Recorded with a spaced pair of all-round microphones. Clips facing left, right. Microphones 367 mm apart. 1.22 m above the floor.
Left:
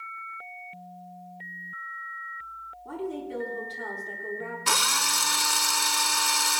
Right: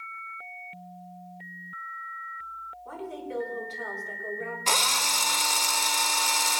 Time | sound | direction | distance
2.9 | a woman speaking | 50° left (ahead or behind) | 3.5 m
4.7 | a drill | 25° left (ahead or behind) | 0.7 m